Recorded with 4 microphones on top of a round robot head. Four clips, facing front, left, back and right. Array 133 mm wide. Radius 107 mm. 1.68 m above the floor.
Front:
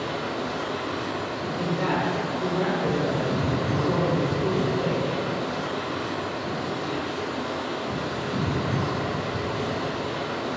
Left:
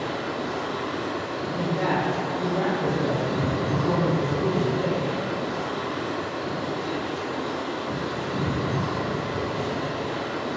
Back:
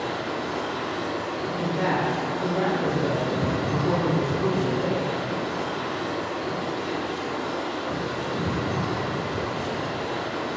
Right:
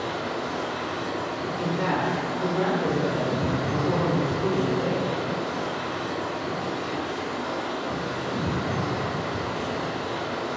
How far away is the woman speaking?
About 0.8 m.